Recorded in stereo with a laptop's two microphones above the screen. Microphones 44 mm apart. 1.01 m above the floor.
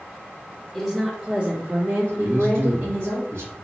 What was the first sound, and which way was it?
A woman speaking, 15° left (ahead or behind).